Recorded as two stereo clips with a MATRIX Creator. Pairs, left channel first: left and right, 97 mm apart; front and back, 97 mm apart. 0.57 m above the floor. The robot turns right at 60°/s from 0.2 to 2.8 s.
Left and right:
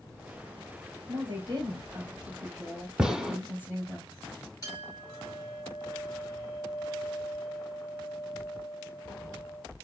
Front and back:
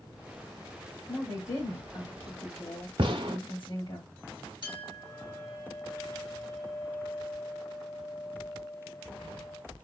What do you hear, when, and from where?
1.1 s a woman speaking: 80° right, 2.5 m; by 4.0 s 25° left, 2.5 m
3.0 s a gunshot: 175° right, 0.7 m
4.6 s a clink: 40° left, 2.5 m